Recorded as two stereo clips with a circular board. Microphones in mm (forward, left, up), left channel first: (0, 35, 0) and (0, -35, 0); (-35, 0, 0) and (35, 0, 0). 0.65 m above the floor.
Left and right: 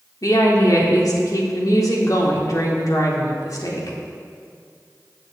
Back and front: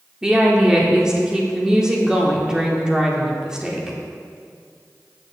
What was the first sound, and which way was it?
A woman speaking, 80° left.